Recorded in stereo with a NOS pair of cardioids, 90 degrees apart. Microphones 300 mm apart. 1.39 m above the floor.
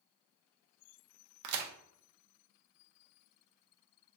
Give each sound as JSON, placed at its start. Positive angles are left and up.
{"t": 1.4, "sound": "a crack", "azimuth_deg": -65, "distance_m": 0.5}